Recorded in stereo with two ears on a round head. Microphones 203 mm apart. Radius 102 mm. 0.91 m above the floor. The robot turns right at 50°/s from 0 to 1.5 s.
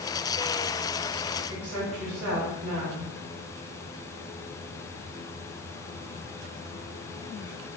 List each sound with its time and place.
1.5 s a woman speaking: 75° right (ahead or behind), 1.7 m